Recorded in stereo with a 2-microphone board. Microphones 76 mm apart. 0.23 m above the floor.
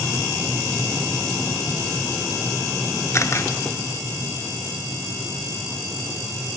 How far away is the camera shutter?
About 1.0 m.